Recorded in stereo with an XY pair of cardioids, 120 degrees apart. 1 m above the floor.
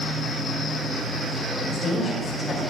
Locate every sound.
0.0 s a machine running: straight ahead, 1.5 m
1.7 s a woman speaking: 30° left, 2.5 m